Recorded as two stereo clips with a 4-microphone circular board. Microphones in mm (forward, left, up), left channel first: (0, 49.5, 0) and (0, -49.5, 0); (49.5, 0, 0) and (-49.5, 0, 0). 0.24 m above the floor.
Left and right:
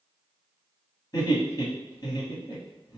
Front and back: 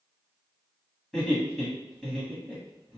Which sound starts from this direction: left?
Laughter, at 1.1 s.